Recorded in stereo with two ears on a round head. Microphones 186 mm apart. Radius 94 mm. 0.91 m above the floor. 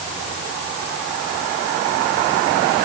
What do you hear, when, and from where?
Only background noise.